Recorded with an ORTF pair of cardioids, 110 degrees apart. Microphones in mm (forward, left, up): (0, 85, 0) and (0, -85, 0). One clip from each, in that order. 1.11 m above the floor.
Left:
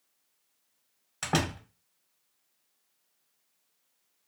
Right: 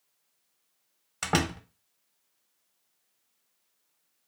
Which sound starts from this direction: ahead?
A door slam, at 1.2 s.